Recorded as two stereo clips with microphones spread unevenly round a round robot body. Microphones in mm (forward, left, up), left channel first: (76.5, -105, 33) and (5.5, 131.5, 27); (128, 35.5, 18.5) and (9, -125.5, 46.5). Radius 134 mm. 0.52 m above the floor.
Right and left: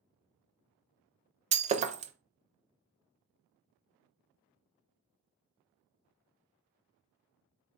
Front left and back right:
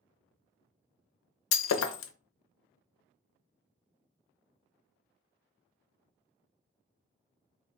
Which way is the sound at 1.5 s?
40° left.